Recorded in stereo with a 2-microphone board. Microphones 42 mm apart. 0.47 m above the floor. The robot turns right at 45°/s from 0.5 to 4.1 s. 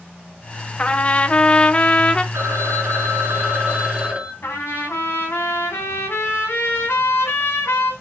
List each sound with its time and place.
0.8 s a trumpet: 30° left (ahead or behind), 0.8 m; by 2.2 s 20° left (ahead or behind), 0.8 m
2.3 s a phone ringing: 100° right, 2.5 m; by 4.3 s 20° right, 2.5 m
4.4 s a trumpet: 70° left (ahead or behind), 4.5 m